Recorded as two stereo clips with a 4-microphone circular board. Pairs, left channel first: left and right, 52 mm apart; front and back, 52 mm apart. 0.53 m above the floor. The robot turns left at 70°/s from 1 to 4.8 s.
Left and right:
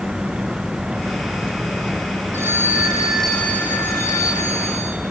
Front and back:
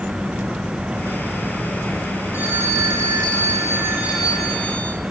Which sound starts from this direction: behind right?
A phone ringing, at 2.3 s.